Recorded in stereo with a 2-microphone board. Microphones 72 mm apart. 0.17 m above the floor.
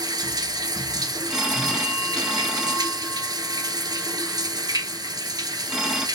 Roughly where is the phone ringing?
Centre.